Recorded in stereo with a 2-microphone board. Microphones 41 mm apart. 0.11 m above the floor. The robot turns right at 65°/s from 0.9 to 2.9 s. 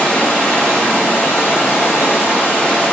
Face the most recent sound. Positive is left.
turn(degrees=160)